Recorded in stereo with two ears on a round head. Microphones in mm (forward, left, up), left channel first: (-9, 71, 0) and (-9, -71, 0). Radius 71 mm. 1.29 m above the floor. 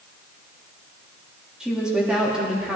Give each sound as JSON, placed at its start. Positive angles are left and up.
{"t": 1.6, "sound": "a woman speaking", "side_deg": -5, "distance_m": 2.5}